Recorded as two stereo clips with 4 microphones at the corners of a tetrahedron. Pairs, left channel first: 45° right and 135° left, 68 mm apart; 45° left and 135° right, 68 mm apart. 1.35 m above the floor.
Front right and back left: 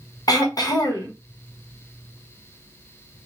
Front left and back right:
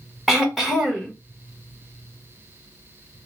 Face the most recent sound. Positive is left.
turn(degrees=-45)